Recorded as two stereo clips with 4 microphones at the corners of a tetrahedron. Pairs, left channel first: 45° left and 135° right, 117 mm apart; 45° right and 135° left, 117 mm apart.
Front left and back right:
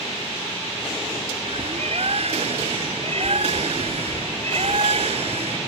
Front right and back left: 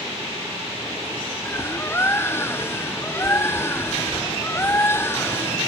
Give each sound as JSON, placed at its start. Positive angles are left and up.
{"t": 1.4, "sound": "a bird", "azimuth_deg": -115}